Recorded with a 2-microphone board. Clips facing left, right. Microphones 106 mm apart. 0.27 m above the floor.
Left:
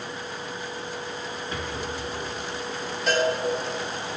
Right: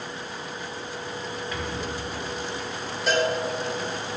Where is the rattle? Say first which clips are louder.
Even; 35° left (ahead or behind), 4 m.